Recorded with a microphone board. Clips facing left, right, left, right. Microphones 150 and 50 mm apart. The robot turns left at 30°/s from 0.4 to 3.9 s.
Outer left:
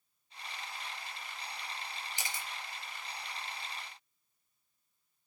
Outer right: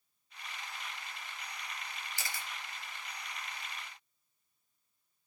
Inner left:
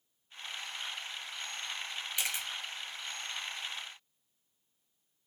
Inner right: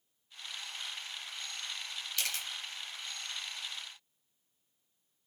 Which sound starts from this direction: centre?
A camera shutter, at 2.2 s.